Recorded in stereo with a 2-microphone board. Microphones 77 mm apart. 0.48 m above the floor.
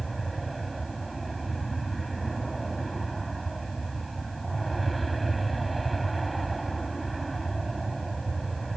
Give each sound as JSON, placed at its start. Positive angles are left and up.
{"t": 0.0, "sound": "an aircraft", "side_deg": 0}